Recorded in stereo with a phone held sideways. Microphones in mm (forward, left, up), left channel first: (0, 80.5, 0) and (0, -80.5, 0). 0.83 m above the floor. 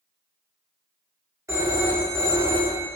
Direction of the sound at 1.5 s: 15° right (ahead or behind).